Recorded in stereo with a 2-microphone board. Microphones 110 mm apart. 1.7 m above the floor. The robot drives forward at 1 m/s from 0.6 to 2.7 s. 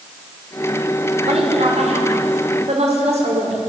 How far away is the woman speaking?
About 6 m.